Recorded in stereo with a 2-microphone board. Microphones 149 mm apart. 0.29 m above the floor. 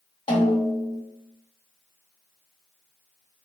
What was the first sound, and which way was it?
A snare drum, 35° left (ahead or behind).